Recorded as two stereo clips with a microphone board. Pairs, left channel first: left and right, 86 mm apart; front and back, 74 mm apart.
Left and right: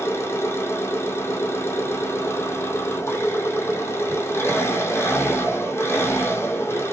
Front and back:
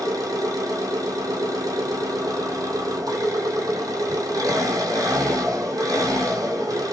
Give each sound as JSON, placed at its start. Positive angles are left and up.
{"t": 0.0, "sound": "an engine running", "azimuth_deg": 150, "distance_m": 1.5}